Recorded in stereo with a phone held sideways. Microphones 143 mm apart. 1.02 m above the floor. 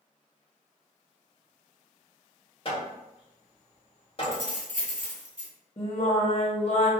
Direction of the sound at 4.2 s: 65° right (ahead or behind).